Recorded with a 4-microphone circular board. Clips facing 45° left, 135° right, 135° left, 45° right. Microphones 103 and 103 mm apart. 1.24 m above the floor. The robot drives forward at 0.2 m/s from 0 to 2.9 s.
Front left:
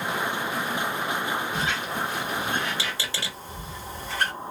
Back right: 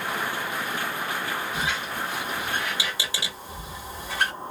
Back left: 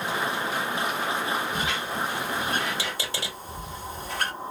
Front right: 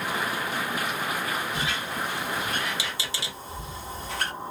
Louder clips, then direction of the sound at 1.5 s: Front left 1 dB, back left 2 dB; 150° left.